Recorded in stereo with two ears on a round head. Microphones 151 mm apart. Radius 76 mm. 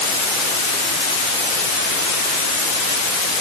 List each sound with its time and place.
Only background noise.